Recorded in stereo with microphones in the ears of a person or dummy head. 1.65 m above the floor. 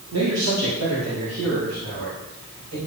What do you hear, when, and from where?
0.1 s a man speaking: 85° right, 2 m